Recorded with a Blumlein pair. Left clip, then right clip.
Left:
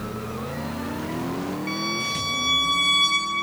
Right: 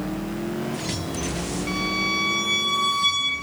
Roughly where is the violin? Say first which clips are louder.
Right 3 dB; ahead.